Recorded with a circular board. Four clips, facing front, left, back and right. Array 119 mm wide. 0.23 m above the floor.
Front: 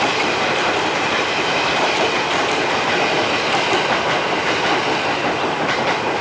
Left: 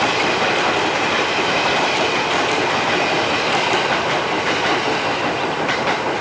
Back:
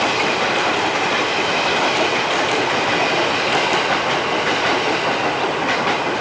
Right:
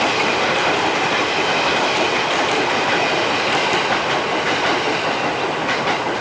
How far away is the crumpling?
I don't hear crumpling.